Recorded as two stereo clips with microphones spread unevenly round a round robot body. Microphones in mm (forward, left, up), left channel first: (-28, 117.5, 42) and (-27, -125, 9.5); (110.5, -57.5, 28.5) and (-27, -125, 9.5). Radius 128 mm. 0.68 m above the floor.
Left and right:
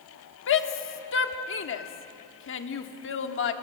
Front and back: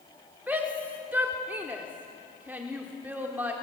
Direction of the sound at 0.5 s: 125° left.